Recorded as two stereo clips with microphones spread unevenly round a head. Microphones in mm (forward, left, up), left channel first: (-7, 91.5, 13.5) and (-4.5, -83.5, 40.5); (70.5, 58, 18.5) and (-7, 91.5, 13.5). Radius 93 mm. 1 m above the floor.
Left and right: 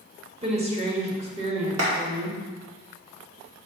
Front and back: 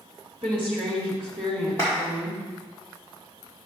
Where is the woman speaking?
150° right, 1.8 m.